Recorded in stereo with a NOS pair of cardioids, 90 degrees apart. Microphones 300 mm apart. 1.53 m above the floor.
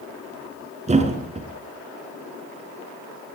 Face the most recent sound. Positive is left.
turn(degrees=-25)